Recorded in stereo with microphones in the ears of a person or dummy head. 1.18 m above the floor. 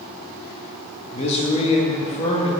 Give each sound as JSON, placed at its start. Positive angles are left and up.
{"t": 1.1, "sound": "a man speaking", "side_deg": 35, "distance_m": 1.4}